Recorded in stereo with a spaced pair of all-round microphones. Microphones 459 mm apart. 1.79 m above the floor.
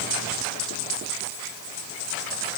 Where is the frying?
I don't hear frying.